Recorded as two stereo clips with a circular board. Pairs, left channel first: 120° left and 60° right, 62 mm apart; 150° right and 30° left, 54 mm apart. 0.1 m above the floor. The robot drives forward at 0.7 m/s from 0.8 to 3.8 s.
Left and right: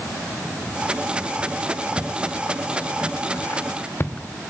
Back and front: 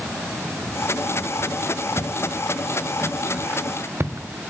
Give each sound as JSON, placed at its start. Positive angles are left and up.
{"t": 2.0, "sound": "footsteps", "azimuth_deg": 115, "distance_m": 1.2}